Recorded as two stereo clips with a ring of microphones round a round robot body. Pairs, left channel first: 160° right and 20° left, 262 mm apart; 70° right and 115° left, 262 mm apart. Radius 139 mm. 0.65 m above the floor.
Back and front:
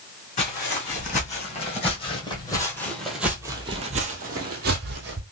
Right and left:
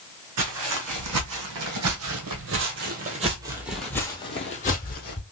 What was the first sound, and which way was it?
Footsteps, 140° left.